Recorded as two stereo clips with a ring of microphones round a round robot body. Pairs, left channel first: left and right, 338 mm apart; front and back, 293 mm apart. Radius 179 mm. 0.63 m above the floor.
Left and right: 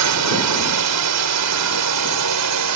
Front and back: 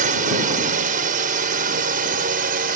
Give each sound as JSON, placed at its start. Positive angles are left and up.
{"t": 0.0, "sound": "a drone", "azimuth_deg": -120}